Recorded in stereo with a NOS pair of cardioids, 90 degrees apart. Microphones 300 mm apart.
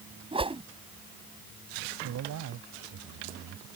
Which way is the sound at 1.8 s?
65° right.